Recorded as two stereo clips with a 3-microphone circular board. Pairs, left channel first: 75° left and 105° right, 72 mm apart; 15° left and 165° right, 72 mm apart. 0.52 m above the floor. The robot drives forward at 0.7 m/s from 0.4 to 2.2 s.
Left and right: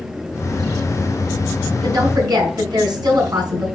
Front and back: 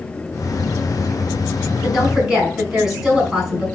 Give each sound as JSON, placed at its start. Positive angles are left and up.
{"t": 1.8, "sound": "a woman speaking", "azimuth_deg": -80, "distance_m": 4.5}